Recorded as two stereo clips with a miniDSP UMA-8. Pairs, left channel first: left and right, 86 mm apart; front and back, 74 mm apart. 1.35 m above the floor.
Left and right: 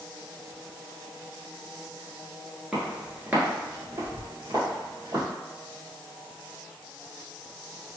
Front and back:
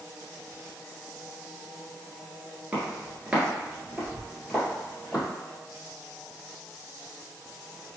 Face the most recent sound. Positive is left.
turn(degrees=-95)